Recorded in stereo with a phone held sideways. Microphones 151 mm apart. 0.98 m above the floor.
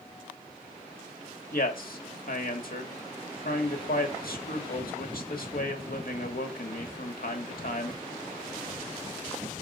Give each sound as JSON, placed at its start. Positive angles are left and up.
{"t": 1.5, "sound": "a man speaking", "side_deg": 75, "distance_m": 1.7}